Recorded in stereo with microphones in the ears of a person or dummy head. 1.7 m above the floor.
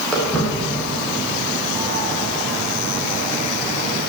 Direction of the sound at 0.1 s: Centre (ahead or behind).